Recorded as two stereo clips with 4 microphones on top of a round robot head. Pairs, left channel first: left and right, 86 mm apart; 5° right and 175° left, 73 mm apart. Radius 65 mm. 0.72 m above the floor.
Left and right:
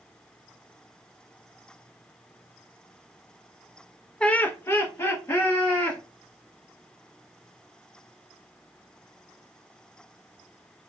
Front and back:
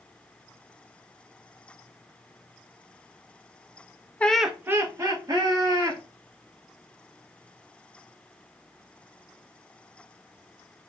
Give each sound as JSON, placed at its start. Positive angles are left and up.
{"t": 4.2, "sound": "laughter", "azimuth_deg": 30, "distance_m": 0.6}